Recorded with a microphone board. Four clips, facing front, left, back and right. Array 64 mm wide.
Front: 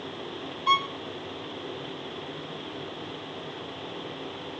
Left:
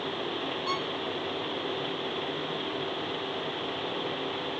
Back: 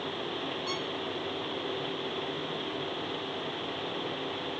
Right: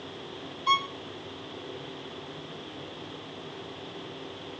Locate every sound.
0.7 s a violin: 25° right